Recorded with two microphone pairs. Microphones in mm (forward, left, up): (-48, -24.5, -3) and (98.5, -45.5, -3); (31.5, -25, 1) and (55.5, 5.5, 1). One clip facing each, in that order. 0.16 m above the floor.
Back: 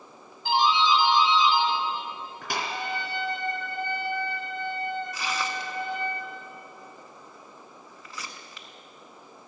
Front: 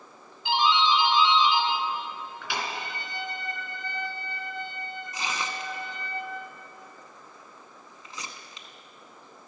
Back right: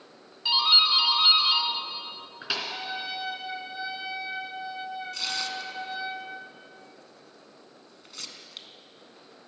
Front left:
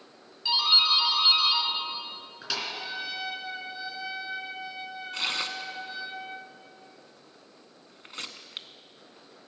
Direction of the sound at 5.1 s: 40° left.